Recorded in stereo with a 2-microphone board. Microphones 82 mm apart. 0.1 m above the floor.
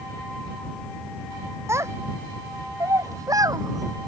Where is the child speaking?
35° right (ahead or behind); by 4.1 s 50° right (ahead or behind).